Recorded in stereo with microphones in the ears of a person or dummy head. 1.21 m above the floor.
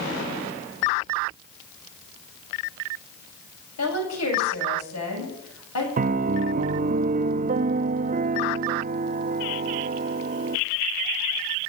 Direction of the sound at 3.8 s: 85° left.